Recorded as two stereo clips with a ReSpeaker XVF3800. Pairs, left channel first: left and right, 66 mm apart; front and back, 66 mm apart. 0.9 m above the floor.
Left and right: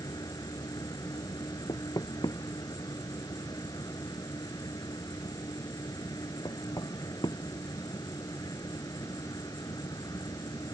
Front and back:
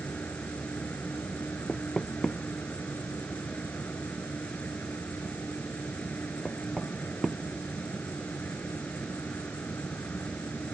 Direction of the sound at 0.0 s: 70° left.